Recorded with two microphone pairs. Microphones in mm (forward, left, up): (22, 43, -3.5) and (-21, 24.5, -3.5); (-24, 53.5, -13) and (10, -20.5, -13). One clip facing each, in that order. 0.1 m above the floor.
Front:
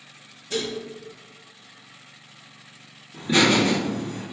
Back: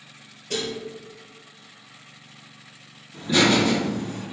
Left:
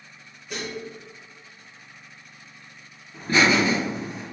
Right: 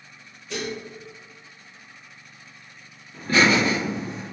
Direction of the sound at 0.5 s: 170° right.